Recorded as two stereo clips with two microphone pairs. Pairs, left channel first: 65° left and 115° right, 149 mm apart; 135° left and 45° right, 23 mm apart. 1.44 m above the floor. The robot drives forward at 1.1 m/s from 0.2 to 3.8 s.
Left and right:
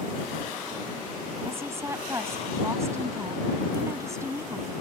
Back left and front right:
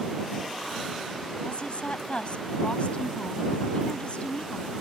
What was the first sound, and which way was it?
A woman speaking, 170° left.